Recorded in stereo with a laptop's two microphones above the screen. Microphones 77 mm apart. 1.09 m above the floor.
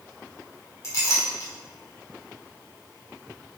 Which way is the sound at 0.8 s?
40° left (ahead or behind).